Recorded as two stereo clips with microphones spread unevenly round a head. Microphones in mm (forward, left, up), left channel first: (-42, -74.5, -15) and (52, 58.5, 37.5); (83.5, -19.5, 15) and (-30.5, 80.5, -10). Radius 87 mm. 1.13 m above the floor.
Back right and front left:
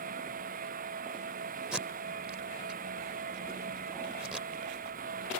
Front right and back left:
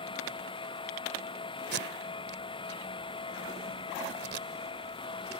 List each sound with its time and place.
0.0 s a fan: 15° left
1.7 s tape being pulled: 130° left